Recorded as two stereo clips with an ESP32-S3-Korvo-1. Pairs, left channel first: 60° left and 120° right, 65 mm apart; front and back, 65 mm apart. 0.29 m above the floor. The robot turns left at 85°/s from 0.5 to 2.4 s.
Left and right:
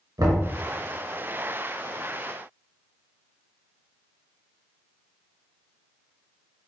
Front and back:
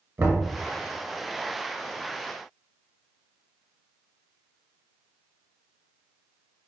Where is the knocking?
140° right, 2 m.